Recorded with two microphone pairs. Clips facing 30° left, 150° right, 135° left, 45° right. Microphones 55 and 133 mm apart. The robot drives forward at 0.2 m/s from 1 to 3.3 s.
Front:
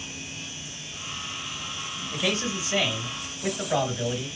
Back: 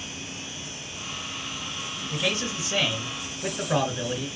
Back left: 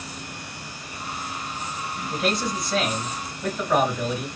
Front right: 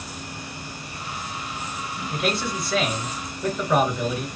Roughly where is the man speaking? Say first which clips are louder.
Front 1 dB, back left 1 dB; behind right.